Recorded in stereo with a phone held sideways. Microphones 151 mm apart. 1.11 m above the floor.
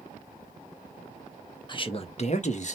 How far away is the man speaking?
About 0.6 m.